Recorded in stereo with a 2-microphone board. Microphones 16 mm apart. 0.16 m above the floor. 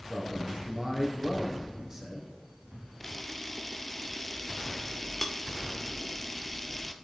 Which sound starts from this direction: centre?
A camera shutter, at 3.0 s.